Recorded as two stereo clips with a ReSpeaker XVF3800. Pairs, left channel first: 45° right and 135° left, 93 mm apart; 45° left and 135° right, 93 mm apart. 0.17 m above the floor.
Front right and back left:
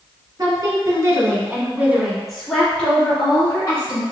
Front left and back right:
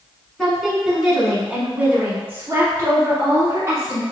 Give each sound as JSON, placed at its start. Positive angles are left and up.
{"t": 0.4, "sound": "a woman speaking", "azimuth_deg": 130, "distance_m": 1.5}